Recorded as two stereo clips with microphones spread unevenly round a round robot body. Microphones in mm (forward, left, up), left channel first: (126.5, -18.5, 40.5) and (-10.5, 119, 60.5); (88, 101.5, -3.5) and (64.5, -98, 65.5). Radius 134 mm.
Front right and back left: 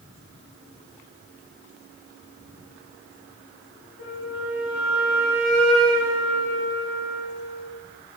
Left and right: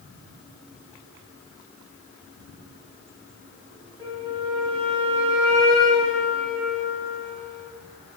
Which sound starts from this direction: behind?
A flute, at 4.0 s.